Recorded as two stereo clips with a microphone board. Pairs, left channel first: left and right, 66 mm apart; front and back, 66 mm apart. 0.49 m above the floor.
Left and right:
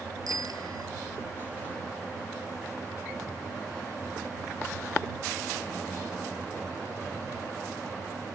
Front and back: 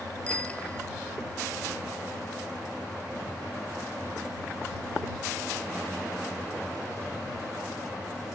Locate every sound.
0.3 s a bicycle bell: 70° right